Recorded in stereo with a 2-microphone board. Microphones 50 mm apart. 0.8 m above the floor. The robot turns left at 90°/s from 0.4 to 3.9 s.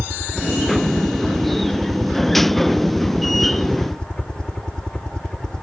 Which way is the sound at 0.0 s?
15° right (ahead or behind).